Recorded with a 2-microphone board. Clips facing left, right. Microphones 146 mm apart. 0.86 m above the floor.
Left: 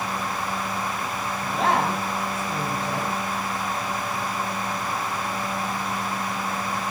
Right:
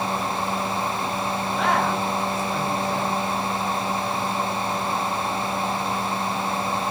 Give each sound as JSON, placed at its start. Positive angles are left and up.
{"t": 1.4, "sound": "a man speaking", "side_deg": 30, "distance_m": 6.5}